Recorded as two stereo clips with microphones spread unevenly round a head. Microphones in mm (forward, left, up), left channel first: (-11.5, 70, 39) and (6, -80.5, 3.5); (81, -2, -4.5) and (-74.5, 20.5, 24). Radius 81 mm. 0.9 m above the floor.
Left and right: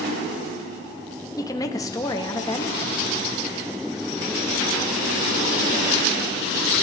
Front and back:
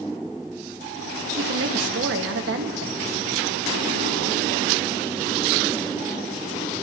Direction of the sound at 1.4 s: 170° left.